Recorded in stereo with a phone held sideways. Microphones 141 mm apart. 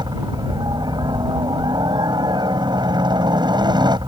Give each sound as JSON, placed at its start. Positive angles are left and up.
{"t": 0.0, "sound": "a helicopter", "side_deg": -30}